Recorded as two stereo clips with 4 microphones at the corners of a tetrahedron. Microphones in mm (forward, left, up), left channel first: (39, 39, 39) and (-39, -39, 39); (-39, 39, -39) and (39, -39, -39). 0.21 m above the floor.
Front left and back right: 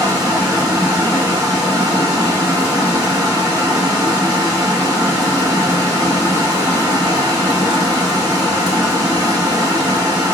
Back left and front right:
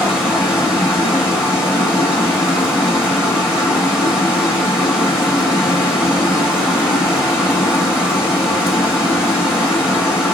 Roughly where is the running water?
Behind right.